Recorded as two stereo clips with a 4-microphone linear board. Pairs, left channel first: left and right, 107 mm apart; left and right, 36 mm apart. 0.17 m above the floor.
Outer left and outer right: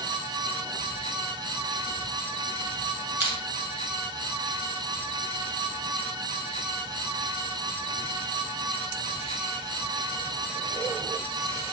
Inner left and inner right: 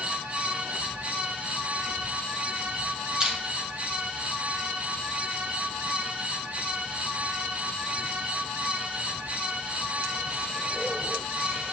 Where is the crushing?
25° right (ahead or behind), 1.7 m.